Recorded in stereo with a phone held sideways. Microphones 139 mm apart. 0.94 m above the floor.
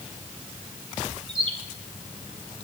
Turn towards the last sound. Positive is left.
turn(degrees=-40)  # may be behind; listen again after turning